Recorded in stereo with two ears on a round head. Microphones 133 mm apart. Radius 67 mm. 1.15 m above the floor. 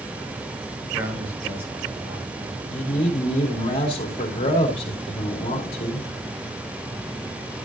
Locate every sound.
0.8 s a man speaking: 15° right (ahead or behind), 4.5 m
2.7 s a man speaking: 40° left (ahead or behind), 2.5 m